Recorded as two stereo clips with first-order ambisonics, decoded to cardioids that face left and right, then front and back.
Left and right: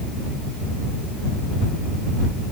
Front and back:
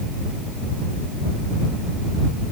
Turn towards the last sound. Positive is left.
No sound to turn to.